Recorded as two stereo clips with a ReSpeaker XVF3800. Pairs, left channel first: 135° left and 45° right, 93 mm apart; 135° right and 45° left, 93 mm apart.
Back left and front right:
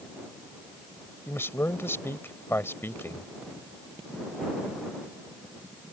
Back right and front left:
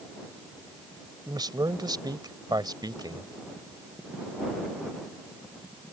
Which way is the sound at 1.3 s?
75° left.